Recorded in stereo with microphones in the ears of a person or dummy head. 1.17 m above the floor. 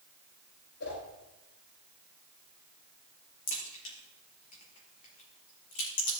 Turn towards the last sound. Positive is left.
turn(degrees=40)  # may be behind; listen again after turning